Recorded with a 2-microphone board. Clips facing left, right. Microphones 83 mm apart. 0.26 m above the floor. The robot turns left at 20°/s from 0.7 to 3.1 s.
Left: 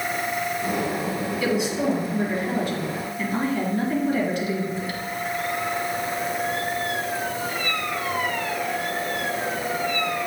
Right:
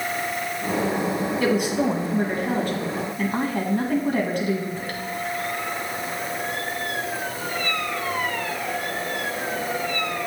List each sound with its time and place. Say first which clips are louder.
1.4 s a woman speaking: right 2 dB; 70° right, 1.8 m; by 5.0 s 105° right, 1.8 m